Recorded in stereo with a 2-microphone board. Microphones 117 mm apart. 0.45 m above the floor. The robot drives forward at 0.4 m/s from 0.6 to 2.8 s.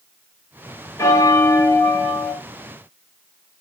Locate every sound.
1.0 s a bell: 25° left (ahead or behind), 0.8 m